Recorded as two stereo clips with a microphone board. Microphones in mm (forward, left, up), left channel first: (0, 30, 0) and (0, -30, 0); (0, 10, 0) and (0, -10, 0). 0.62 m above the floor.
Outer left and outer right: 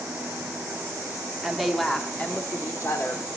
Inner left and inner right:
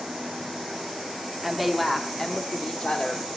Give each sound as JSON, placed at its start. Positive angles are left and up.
{"t": 1.4, "sound": "a woman speaking", "side_deg": -10, "distance_m": 1.3}